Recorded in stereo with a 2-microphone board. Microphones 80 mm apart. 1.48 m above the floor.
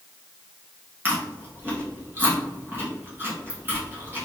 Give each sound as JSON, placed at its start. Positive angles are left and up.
{"t": 1.1, "sound": "chewing", "side_deg": -25, "distance_m": 1.6}